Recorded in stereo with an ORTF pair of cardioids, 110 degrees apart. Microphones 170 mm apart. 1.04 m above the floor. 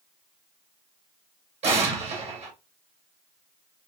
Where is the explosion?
40° right, 1.8 m.